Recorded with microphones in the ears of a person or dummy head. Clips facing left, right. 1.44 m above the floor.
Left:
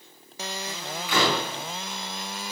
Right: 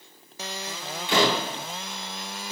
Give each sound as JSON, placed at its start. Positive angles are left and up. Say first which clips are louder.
{"t": 1.1, "sound": "a door slam", "louder": "right 2 dB", "side_deg": -20, "distance_m": 4.5}